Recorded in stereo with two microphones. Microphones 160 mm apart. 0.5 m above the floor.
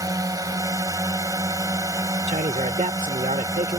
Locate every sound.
0.0 s a drone: 20° right (ahead or behind)
2.3 s a man speaking: 50° right (ahead or behind)